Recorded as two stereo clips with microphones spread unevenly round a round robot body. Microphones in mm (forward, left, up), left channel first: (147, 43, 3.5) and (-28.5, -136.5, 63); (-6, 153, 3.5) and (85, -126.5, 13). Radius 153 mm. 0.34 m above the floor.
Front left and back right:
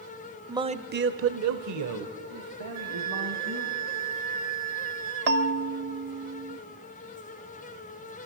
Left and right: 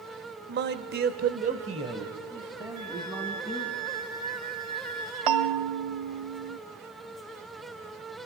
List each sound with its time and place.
0.5 s a man speaking: 45° right, 1.0 m; by 3.8 s 155° right, 3.5 m
2.8 s a flute: 115° right, 2.5 m
5.3 s a bell: 80° right, 1.0 m